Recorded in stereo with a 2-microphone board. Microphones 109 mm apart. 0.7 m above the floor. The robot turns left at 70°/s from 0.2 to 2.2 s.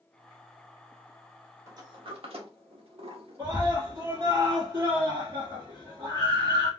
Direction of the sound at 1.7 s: 25° right (ahead or behind).